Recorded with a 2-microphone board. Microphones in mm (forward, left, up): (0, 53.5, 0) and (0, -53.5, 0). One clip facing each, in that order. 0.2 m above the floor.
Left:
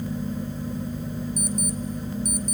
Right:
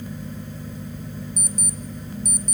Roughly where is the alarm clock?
Left.